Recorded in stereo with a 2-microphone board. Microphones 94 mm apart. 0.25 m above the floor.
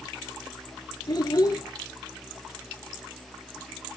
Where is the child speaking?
45° left (ahead or behind), 3 m.